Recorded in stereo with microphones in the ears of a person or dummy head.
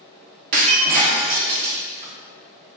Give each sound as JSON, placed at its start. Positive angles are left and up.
{"t": 0.5, "sound": "breaking glass", "side_deg": -40, "distance_m": 0.7}